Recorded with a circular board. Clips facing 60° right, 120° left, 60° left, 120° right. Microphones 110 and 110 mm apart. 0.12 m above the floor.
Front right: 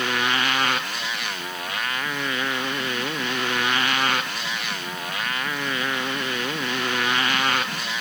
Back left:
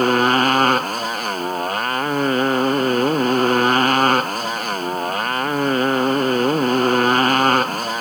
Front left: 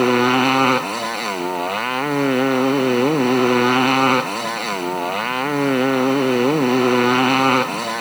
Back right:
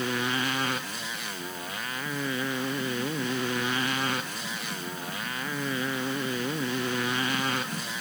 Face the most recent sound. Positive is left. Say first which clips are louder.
# back left 9 dB, front left 14 dB
turn(degrees=75)